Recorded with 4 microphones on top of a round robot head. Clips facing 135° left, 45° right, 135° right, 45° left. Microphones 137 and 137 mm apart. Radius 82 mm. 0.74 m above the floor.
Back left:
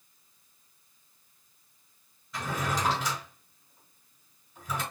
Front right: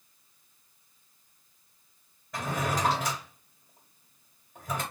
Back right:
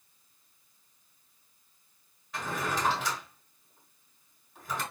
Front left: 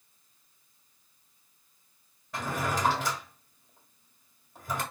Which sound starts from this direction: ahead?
A drawer, at 2.3 s.